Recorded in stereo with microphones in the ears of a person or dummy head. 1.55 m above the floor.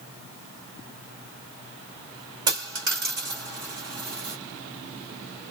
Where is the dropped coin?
20° right (ahead or behind), 1.2 m.